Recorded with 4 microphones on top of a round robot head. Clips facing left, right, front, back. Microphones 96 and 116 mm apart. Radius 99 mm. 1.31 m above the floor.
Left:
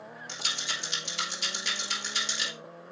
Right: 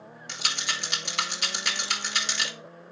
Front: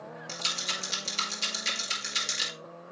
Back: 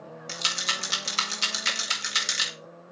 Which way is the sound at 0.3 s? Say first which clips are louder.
Right 5 dB, back 6 dB; 135° right.